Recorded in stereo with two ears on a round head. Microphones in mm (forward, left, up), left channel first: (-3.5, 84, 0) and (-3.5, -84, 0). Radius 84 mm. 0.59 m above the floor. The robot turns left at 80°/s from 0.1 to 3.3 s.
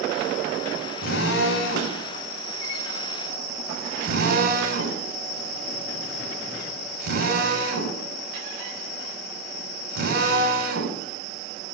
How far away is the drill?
About 3.5 m.